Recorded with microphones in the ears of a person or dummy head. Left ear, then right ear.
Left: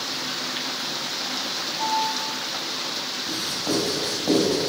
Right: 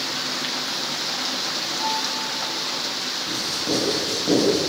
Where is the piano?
40° left (ahead or behind), 3.5 m.